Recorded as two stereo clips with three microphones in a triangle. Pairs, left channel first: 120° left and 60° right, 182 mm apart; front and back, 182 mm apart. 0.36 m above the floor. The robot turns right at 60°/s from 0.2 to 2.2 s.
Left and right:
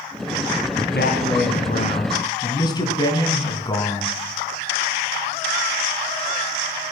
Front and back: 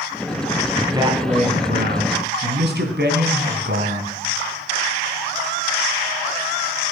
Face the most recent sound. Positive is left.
turn(degrees=-175)